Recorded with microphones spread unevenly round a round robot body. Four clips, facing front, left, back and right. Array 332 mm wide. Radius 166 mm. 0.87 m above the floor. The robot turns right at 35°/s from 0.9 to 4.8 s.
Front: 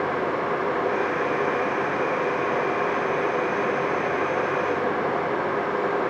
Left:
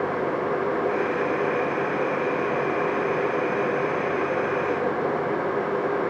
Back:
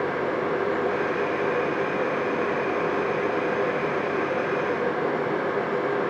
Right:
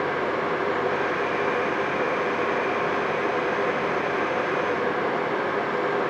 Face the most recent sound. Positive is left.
No sound to turn to.